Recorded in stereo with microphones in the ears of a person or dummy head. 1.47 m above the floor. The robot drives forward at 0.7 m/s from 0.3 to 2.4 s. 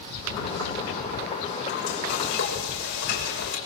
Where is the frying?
70° left (ahead or behind), 6.5 m; by 3.6 s 65° left (ahead or behind), 7 m.